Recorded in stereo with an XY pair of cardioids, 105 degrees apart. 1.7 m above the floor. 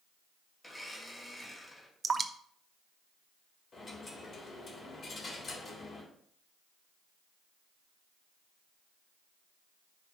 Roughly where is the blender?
Ahead.